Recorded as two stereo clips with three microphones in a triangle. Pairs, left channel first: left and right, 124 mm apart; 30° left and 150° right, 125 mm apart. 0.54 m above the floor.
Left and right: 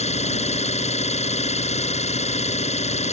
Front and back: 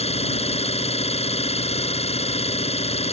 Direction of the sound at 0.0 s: 65° left.